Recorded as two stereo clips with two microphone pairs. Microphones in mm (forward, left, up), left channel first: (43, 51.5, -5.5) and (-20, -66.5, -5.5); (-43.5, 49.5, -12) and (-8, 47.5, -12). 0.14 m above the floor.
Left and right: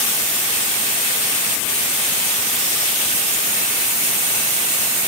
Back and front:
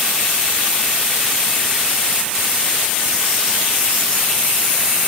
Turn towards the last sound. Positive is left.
No sound to turn to.